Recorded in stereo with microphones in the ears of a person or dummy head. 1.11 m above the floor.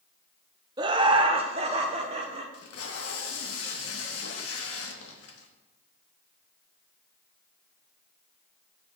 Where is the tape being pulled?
75° left (ahead or behind), 1.1 m.